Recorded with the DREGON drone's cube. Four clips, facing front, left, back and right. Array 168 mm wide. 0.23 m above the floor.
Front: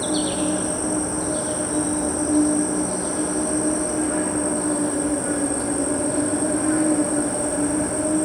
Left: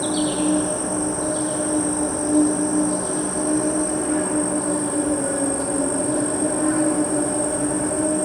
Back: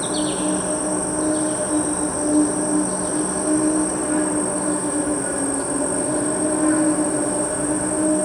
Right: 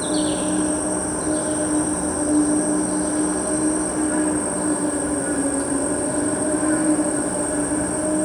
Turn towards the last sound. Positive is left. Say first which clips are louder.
# even, even
turn(degrees=155)